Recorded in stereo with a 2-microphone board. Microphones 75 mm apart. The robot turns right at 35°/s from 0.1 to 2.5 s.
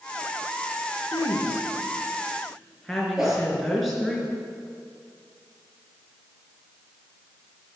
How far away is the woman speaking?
About 4 m.